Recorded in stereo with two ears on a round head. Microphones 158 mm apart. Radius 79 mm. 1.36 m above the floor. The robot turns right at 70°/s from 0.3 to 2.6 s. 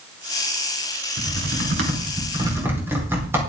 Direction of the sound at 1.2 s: 70° right (ahead or behind).